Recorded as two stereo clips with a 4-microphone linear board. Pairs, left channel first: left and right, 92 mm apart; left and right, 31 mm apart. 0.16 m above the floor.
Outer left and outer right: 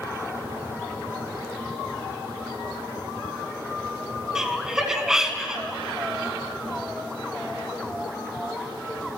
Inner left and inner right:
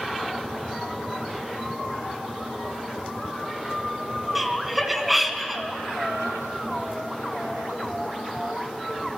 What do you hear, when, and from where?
4.3 s laughter: 5° right (ahead or behind), 1.3 m